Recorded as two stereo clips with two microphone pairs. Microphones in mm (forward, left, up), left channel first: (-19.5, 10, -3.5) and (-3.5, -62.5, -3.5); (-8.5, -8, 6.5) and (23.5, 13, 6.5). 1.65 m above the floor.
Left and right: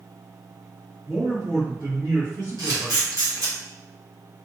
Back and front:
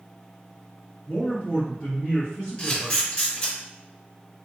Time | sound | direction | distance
1.1 | a man speaking | 95° right | 2.0 m
2.6 | a camera shutter | 85° right | 1.7 m